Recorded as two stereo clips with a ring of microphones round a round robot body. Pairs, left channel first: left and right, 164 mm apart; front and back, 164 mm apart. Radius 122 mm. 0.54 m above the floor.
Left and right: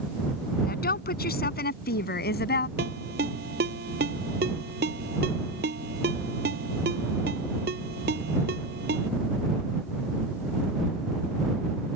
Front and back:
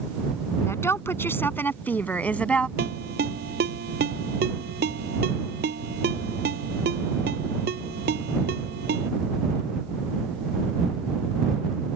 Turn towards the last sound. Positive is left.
turn(degrees=-135)